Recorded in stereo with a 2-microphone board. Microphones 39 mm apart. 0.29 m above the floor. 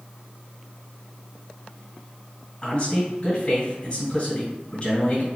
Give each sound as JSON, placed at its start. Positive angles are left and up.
{"t": 2.6, "sound": "a man speaking", "side_deg": 25, "distance_m": 1.6}